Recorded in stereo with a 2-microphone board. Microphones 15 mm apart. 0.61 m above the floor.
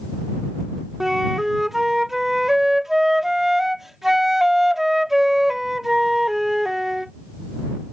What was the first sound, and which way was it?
A flute, 20° right (ahead or behind).